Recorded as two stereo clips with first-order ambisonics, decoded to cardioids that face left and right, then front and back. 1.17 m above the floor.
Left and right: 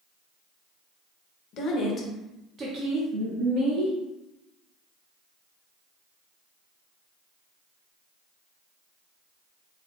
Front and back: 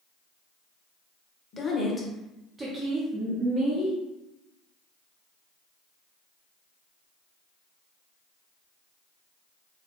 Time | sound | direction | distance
1.5 | a woman speaking | 60° left | 0.9 m